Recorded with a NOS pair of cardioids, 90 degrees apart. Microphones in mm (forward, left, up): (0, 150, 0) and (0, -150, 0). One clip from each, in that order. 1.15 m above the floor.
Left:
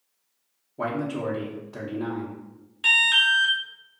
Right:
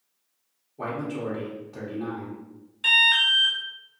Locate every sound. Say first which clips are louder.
0.8 s a man speaking: left 3 dB; 25° left, 0.8 m
2.8 s an alarm: even; 10° left, 1.2 m